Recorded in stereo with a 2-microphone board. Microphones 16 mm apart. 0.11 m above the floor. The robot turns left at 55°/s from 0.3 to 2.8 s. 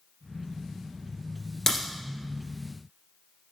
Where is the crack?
20° left (ahead or behind), 1.8 m; by 1.8 s 25° left (ahead or behind), 1.8 m.